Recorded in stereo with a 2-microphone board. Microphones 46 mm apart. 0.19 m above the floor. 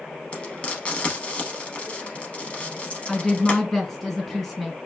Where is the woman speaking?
10° left (ahead or behind), 1.5 m.